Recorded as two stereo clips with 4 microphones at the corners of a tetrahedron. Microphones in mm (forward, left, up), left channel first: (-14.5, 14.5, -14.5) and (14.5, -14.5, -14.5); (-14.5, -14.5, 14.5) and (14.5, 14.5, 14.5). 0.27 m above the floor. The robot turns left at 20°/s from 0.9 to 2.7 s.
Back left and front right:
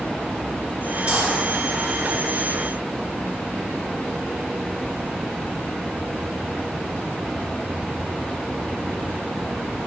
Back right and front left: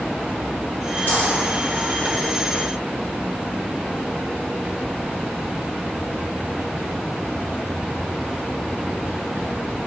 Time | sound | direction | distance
1.1 | a dropped coin | 105° right | 1.3 m